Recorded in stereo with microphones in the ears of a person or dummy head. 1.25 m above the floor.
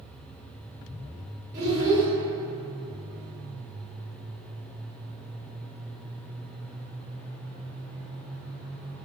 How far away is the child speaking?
About 1.3 m.